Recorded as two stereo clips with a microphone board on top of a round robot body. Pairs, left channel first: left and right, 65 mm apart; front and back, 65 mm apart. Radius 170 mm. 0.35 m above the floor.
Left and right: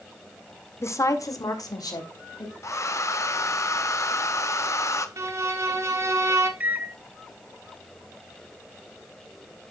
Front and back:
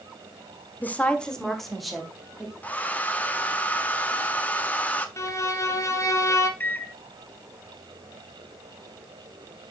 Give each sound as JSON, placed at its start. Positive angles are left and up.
{"t": 0.8, "sound": "a woman speaking", "azimuth_deg": 55, "distance_m": 1.6}
{"t": 2.6, "sound": "a hair dryer", "azimuth_deg": 60, "distance_m": 1.3}
{"t": 5.2, "sound": "a violin", "azimuth_deg": -45, "distance_m": 1.3}
{"t": 6.6, "sound": "a microwave", "azimuth_deg": -40, "distance_m": 1.2}